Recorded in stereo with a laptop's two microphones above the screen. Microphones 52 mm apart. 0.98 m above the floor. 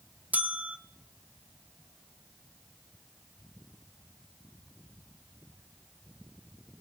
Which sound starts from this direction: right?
A bell, at 0.3 s.